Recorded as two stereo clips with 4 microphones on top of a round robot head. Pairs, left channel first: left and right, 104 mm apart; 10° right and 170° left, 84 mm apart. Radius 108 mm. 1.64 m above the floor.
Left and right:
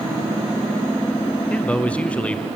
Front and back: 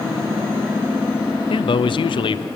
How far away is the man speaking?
About 0.7 m.